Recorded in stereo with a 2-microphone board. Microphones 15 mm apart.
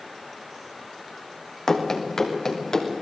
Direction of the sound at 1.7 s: 40° left (ahead or behind).